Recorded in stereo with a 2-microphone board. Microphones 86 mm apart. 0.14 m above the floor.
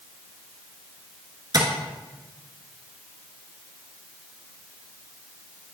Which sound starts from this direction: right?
Tapping, at 1.5 s.